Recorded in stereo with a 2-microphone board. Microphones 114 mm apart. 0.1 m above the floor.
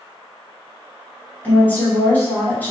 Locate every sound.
1.4 s a woman speaking: 15° left (ahead or behind), 1.2 m